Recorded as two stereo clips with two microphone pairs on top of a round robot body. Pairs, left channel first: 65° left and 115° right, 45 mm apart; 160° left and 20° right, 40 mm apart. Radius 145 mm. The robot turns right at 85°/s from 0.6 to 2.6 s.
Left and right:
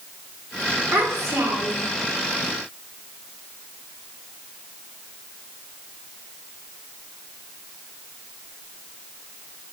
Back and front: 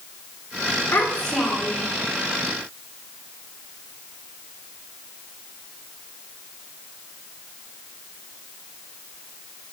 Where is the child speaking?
160° right, 2.5 m; by 1.9 s 75° right, 2.5 m.